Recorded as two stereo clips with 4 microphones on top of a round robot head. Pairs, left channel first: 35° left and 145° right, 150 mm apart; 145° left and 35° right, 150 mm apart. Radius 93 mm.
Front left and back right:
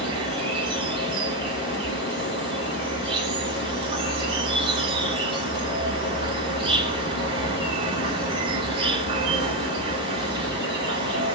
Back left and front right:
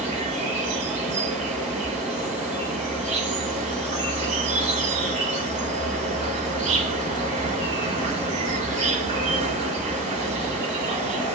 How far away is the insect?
About 0.8 m.